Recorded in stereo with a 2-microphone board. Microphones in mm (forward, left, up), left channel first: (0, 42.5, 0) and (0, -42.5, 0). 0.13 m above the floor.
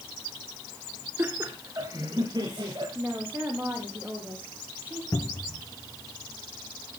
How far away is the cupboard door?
About 1.4 m.